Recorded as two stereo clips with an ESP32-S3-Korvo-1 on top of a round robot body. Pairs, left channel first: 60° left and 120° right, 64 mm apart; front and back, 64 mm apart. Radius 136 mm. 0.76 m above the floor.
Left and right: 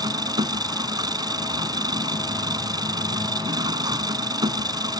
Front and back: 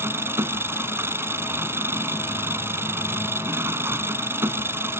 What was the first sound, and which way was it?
An engine running, 125° right.